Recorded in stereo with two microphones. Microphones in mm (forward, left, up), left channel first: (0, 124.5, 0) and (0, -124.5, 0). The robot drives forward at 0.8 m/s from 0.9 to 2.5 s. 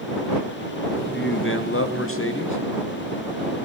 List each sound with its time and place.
1.1 s a man speaking: 45° left (ahead or behind), 1.2 m; by 2.6 s 50° left (ahead or behind), 1.1 m